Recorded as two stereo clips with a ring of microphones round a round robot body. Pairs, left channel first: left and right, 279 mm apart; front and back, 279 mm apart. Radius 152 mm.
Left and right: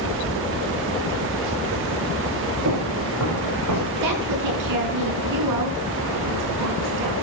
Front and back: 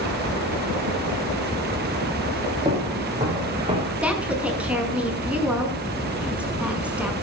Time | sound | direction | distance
2.6 | footsteps | 110° right | 9 m
4.0 | a woman speaking | 95° right | 6 m